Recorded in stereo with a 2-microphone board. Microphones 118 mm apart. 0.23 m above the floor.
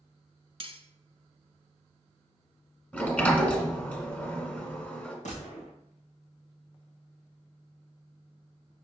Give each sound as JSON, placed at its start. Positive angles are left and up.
{"t": 0.6, "sound": "cutlery clinking", "side_deg": -50, "distance_m": 1.0}
{"t": 2.9, "sound": "a sliding door", "side_deg": 15, "distance_m": 1.4}
{"t": 5.2, "sound": "a gunshot", "side_deg": 90, "distance_m": 2.5}